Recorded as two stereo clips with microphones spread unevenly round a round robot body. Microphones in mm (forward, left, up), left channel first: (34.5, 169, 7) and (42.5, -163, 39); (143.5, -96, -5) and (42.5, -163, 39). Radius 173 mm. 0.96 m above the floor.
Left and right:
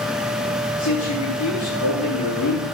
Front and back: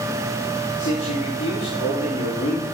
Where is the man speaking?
50° left, 9.5 m.